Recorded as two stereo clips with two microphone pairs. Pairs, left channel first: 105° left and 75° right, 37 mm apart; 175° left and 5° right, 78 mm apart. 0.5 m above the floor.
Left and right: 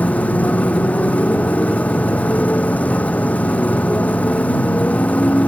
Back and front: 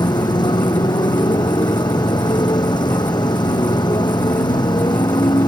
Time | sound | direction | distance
0.0 | a motorcycle | 155° left | ?